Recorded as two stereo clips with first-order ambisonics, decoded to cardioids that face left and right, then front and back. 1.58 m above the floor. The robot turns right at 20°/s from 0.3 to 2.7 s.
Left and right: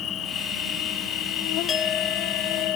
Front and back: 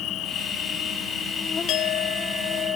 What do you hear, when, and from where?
0.0 s an insect: 40° left; by 2.8 s 90° left
1.7 s a clink: 25° left; by 2.8 s 45° left